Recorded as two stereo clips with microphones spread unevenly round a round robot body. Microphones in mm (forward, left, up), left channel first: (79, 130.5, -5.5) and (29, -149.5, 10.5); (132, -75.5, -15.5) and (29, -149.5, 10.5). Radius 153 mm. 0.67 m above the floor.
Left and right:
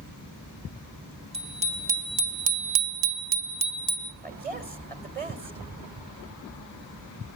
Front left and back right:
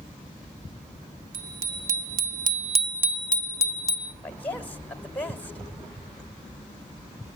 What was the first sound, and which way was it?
A bicycle bell, 175° right.